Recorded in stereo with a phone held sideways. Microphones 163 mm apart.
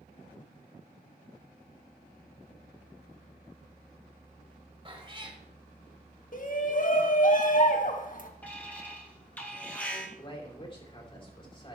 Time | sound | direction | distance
4.8 | a cat meowing | 30° right (ahead or behind) | 1.7 m
6.3 | a shout | 55° left (ahead or behind) | 1.7 m
8.4 | an alarm | 10° left (ahead or behind) | 2.5 m
10.2 | a man speaking | 30° left (ahead or behind) | 3.5 m